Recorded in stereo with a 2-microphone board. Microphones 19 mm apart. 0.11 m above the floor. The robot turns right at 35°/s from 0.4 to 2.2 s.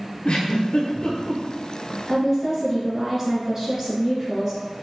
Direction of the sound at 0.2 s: 50° left (ahead or behind).